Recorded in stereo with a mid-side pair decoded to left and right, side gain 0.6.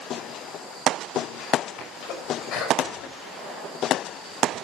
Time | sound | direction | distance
1.8 | a sneeze | 65° left | 6.5 m